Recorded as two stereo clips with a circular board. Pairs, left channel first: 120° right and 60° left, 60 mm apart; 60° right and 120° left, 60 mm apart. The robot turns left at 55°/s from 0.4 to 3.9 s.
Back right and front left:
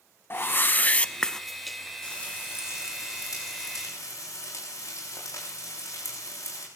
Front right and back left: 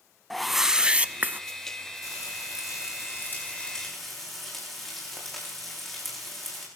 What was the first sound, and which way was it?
A whoosh, 145° right.